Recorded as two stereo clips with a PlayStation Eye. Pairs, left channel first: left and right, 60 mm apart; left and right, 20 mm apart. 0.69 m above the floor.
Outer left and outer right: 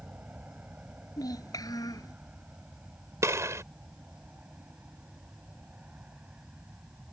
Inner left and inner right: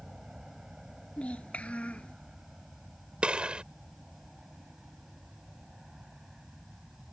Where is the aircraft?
25° right (ahead or behind); by 7.1 s 20° right (ahead or behind).